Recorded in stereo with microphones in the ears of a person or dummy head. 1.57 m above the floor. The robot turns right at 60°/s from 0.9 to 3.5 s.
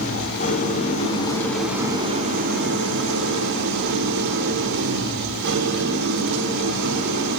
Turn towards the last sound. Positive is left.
turn(degrees=-70)